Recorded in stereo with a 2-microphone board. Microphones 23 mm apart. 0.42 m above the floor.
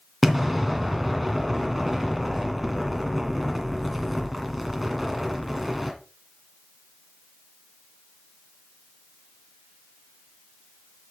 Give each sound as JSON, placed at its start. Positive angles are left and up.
{"t": 0.2, "sound": "an explosion", "side_deg": -5, "distance_m": 2.0}